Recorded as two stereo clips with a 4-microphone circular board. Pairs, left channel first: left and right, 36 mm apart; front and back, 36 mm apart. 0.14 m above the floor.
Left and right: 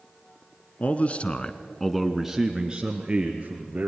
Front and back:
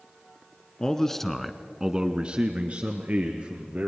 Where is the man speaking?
65° left, 1.4 m; by 3.9 s 140° right, 2.5 m.